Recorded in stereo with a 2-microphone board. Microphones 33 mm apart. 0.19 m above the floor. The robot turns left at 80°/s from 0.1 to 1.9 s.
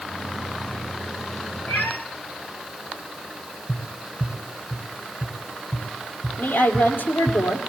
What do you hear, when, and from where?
1.7 s a cat meowing: 60° left (ahead or behind), 3 m; by 2.0 s 75° left (ahead or behind), 3 m
3.7 s tapping: 25° right (ahead or behind), 1.9 m
6.4 s a woman speaking: 70° left (ahead or behind), 4 m